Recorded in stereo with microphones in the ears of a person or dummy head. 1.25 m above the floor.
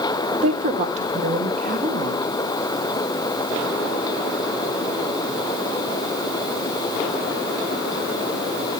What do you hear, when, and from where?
0.3 s a woman speaking: 25° right (ahead or behind), 1.0 m; by 2.3 s 50° right (ahead or behind), 2.5 m